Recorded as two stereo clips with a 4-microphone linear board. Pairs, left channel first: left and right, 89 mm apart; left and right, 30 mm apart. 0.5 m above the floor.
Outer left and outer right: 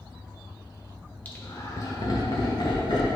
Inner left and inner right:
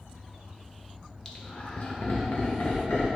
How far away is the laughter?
About 1.3 m.